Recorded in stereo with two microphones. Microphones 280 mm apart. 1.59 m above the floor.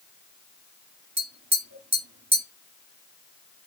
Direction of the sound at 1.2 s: 85° right.